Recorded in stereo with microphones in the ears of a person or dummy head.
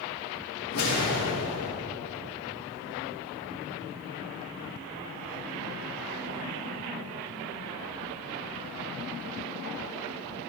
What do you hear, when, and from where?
0.7 s a whoosh: 85° left, 3.5 m